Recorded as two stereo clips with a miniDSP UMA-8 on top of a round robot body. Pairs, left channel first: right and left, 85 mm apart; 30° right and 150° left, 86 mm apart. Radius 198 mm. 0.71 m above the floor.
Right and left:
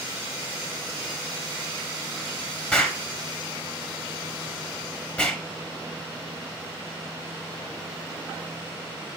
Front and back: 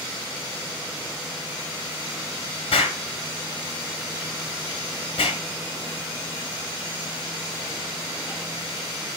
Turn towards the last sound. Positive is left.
turn(degrees=-15)